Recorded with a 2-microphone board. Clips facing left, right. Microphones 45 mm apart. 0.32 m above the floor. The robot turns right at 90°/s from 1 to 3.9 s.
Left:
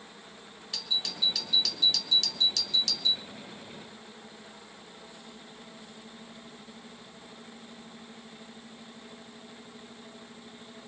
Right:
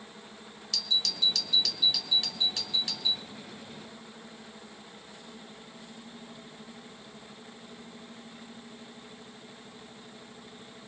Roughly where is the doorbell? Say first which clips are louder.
Right 2 dB; centre.